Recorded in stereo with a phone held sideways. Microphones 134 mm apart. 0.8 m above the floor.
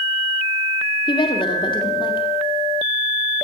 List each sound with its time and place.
1.1 s a woman speaking: 35° left (ahead or behind), 2 m